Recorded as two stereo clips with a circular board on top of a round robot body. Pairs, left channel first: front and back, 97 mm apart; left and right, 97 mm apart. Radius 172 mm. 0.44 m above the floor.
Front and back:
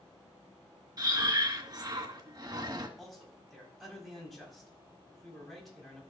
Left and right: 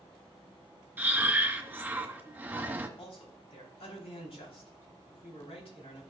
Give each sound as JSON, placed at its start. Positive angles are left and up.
{"t": 1.0, "sound": "breathing", "azimuth_deg": -155, "distance_m": 1.5}
{"t": 3.0, "sound": "a man speaking", "azimuth_deg": 90, "distance_m": 3.5}